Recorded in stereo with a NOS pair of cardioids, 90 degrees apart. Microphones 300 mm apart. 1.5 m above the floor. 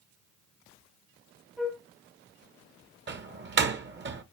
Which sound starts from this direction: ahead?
A flute, at 1.6 s.